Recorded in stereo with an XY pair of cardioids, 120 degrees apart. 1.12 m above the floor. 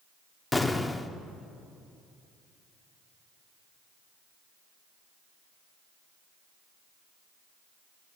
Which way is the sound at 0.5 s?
10° left.